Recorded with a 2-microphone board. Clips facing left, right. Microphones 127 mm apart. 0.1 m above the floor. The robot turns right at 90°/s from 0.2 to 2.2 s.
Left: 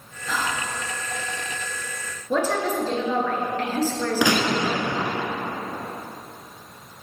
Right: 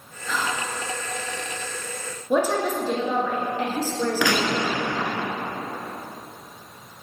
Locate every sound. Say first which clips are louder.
0.3 s whispering: even; 5° left, 1.3 m; by 0.7 s 45° left, 1.3 m
2.3 s a woman speaking: right 1 dB; 15° right (ahead or behind), 1.4 m
4.2 s a gunshot: left 4 dB; 20° left (ahead or behind), 0.9 m